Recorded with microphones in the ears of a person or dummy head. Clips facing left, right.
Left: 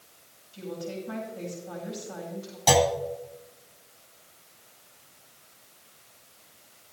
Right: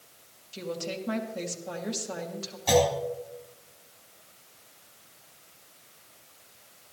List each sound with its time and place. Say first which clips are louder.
0.5 s a woman speaking: right 1 dB; 70° right (ahead or behind), 2.5 m
2.7 s a clunk: left 1 dB; 80° left, 3.5 m